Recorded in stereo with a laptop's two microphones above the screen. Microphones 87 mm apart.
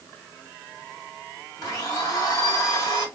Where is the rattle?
I don't hear a rattle.